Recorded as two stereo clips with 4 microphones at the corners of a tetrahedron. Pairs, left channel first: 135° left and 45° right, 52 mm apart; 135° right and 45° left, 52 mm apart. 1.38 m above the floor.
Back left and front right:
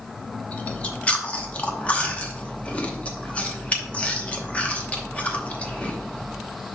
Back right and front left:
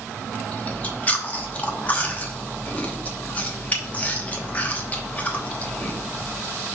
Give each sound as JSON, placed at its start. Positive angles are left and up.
{"t": 0.5, "sound": "chewing", "azimuth_deg": -175, "distance_m": 0.9}